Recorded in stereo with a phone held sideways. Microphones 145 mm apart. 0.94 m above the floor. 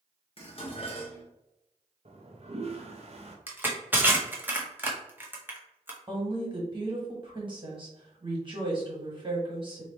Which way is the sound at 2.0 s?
50° right (ahead or behind).